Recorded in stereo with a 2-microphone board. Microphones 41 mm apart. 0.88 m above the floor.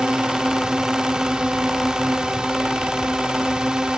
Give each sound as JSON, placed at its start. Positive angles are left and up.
{"t": 0.0, "sound": "a drone", "side_deg": -20}